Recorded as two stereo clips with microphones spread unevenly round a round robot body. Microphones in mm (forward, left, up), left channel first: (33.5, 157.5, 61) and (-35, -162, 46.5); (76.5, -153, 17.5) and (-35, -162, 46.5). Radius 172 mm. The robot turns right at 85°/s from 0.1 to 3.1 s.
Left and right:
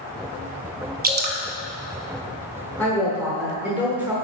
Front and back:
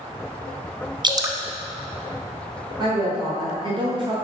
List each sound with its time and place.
1.0 s dripping: 130° right, 0.9 m; by 1.4 s 105° right, 0.9 m
2.8 s a woman speaking: 155° left, 1.1 m; by 4.2 s 175° right, 1.1 m